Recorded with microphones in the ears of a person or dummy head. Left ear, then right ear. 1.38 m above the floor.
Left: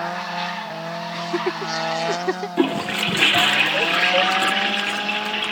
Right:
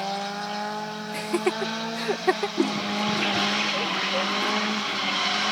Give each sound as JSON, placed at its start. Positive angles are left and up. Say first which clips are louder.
{"t": 1.1, "sound": "laughter", "louder": "even", "side_deg": -30}
{"t": 2.6, "sound": "a toilet flushing", "louder": "left 4 dB", "side_deg": 55}